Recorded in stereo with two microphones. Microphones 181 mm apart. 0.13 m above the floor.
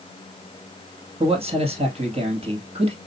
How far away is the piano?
I don't hear a piano.